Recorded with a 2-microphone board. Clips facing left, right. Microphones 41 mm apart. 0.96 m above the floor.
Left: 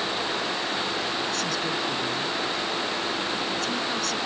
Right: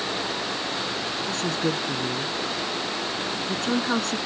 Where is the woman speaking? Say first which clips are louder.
Right 2 dB; 40° right (ahead or behind).